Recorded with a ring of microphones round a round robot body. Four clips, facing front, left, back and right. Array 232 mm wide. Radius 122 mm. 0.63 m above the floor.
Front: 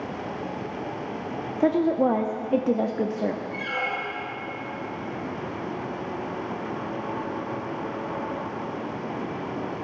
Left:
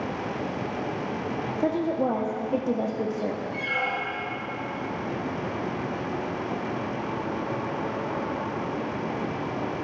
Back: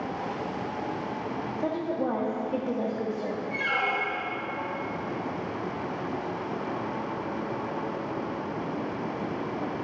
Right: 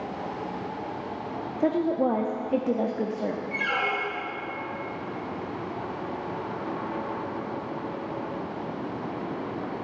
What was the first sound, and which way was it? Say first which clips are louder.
A woman speaking: right 2 dB, front 9 dB; 10° right.